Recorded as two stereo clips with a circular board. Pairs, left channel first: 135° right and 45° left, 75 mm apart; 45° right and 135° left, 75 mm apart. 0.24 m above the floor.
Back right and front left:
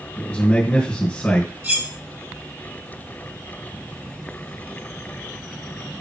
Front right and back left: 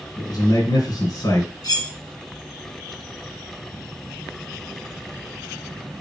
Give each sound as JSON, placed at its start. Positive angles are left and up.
{"t": 0.2, "sound": "a man speaking", "azimuth_deg": -65, "distance_m": 2.5}
{"t": 1.6, "sound": "cutlery clinking", "azimuth_deg": -20, "distance_m": 3.0}